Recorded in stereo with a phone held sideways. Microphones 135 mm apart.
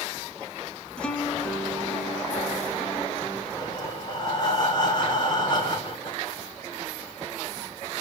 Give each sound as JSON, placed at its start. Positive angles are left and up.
{"t": 1.0, "sound": "a guitar", "side_deg": 5, "distance_m": 1.6}
{"t": 3.5, "sound": "breathing", "side_deg": 30, "distance_m": 3.5}